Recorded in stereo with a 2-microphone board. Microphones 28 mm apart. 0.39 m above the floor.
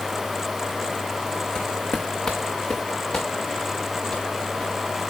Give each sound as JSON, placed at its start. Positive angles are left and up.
{"t": 1.6, "sound": "footsteps", "side_deg": 40, "distance_m": 1.3}